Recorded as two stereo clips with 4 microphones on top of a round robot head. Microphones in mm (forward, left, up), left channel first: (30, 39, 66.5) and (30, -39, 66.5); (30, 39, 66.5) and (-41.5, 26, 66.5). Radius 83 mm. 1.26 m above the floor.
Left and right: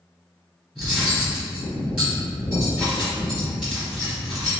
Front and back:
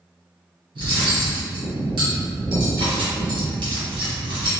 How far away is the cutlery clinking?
About 1.2 m.